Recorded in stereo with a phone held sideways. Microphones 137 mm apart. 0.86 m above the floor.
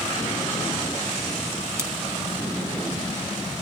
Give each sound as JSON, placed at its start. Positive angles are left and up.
{"t": 1.8, "sound": "scissors", "side_deg": -20, "distance_m": 1.8}